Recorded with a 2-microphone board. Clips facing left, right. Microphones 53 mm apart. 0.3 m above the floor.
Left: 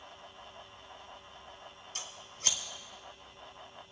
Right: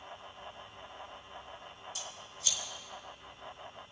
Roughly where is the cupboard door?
No cupboard door in this recording.